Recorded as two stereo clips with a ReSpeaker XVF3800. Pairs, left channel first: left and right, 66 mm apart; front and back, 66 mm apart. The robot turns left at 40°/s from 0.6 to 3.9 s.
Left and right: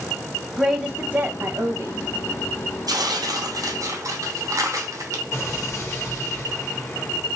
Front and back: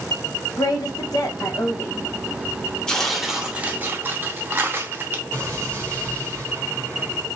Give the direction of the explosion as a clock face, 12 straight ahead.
8 o'clock.